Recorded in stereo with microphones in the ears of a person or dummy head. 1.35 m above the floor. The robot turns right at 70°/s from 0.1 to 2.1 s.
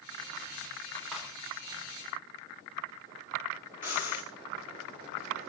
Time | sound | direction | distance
1.1 | cutlery clinking | 5° left (ahead or behind) | 3 m
3.8 | breathing | 15° right (ahead or behind) | 1.3 m